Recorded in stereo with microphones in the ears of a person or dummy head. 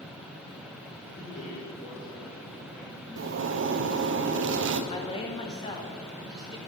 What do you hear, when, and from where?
1.0 s a man speaking: 55° left (ahead or behind), 3.5 m
3.2 s a zipper: 55° right (ahead or behind), 0.5 m
4.9 s a woman speaking: 30° left (ahead or behind), 1.3 m